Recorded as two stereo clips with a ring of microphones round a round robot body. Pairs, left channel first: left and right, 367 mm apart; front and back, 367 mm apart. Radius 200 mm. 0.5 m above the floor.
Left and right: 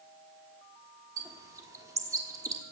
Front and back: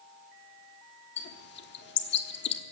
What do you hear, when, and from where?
1.2 s a bird: 15° right, 1.2 m